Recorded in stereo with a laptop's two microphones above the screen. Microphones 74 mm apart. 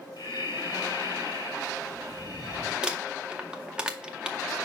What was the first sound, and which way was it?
Breathing, 75° left (ahead or behind).